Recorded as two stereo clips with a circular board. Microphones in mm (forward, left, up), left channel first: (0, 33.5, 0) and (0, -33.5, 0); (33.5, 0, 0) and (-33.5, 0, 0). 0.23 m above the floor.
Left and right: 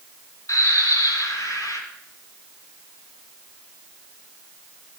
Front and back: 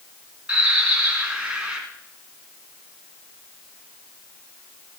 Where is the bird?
105° left, 2.5 m.